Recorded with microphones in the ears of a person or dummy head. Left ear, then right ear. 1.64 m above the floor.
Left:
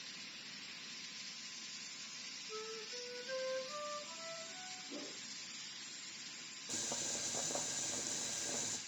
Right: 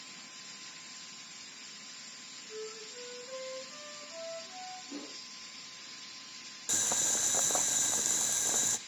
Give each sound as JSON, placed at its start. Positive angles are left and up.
{"t": 2.5, "sound": "a flute", "side_deg": 20, "distance_m": 7.0}
{"t": 4.9, "sound": "a whoosh", "side_deg": -75, "distance_m": 5.0}
{"t": 6.7, "sound": "boiling", "side_deg": -55, "distance_m": 0.9}